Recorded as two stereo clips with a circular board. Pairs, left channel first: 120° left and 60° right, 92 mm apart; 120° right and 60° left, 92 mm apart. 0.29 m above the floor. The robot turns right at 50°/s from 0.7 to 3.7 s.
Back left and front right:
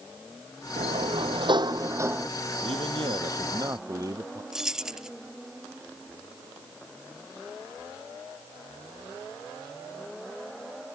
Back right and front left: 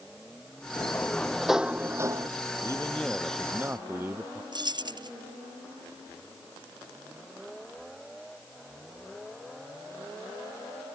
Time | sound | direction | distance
0.8 | a sliding door | 65° right | ?
2.6 | a man speaking | 60° right | ?
4.5 | keys jangling | 25° left | ?